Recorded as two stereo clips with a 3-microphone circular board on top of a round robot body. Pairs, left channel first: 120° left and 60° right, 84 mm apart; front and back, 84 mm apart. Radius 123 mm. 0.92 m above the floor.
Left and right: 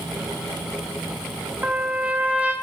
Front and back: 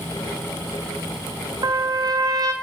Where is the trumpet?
135° right, 1.5 m.